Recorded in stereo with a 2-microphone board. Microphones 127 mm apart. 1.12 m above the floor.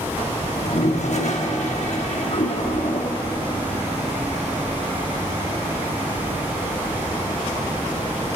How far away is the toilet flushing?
About 1.1 m.